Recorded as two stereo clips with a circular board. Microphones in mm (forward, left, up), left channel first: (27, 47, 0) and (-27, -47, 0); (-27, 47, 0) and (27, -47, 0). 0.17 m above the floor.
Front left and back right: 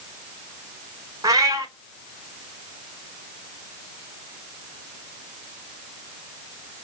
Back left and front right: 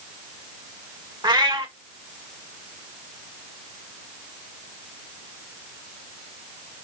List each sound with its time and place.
1.2 s a cat meowing: 80° right, 0.8 m